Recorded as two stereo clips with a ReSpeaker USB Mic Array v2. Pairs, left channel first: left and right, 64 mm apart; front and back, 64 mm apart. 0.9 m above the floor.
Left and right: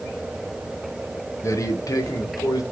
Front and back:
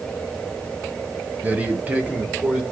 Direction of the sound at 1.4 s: 120° left.